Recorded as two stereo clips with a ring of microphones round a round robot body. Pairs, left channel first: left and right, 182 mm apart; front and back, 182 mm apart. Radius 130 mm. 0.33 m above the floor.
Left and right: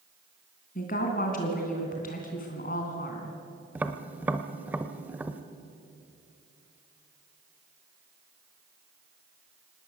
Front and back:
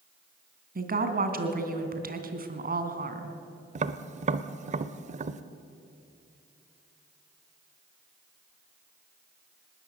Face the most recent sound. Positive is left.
turn(degrees=-165)